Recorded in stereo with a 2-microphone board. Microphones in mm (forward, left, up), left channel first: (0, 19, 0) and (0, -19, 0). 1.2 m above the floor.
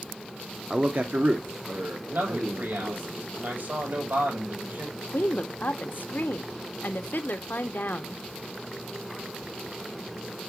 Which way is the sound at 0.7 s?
15° right (ahead or behind).